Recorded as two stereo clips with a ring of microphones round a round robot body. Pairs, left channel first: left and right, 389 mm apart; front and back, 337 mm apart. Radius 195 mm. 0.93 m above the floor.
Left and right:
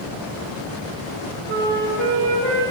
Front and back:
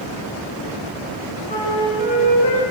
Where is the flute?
70° right, 2.0 m.